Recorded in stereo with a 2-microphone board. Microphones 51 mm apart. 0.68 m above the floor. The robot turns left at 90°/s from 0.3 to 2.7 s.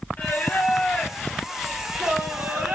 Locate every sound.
0.2 s singing: 115° left, 0.9 m; by 2.8 s 100° right, 0.9 m